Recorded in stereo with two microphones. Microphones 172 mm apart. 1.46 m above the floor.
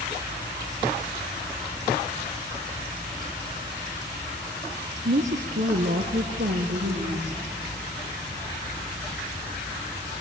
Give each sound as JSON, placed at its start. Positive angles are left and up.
{"t": 5.0, "sound": "a woman speaking", "side_deg": -60, "distance_m": 0.9}